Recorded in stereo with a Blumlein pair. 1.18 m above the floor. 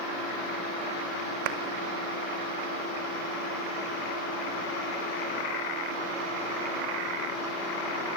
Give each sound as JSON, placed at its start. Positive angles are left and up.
{"t": 1.4, "sound": "a clap", "azimuth_deg": -45, "distance_m": 1.7}